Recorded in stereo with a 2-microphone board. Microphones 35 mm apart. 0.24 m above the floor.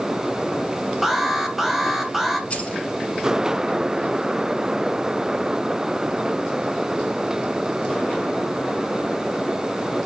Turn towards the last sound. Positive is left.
turn(degrees=35)  # may be behind; listen again after turning